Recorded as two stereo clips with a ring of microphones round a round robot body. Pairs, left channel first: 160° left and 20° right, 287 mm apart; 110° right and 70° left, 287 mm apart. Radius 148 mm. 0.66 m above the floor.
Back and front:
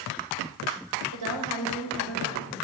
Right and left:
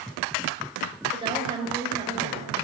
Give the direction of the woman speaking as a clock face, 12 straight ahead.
12 o'clock.